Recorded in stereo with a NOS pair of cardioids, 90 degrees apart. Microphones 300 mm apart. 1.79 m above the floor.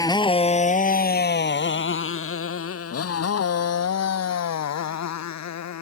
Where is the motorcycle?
10° left; by 5.8 s 65° left.